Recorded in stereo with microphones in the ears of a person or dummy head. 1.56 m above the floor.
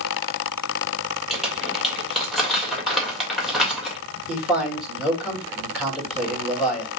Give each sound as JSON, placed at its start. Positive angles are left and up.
{"t": 1.3, "sound": "crumpling", "side_deg": 0, "distance_m": 1.6}
{"t": 4.3, "sound": "a man speaking", "side_deg": 0, "distance_m": 2.0}